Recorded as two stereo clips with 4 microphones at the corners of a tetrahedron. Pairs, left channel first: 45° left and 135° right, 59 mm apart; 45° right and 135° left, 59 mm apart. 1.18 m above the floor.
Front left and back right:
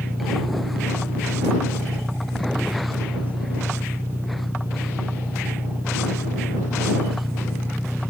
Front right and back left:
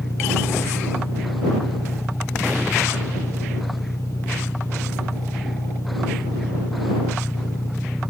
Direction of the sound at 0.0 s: 80° right.